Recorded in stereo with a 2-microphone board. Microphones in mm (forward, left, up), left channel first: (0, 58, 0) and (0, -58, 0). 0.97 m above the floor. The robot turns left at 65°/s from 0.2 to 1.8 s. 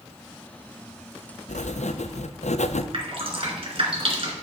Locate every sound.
1.5 s writing: 85° left, 0.5 m; by 2.8 s 70° left (ahead or behind), 0.5 m
2.9 s dripping: 50° right (ahead or behind), 2.5 m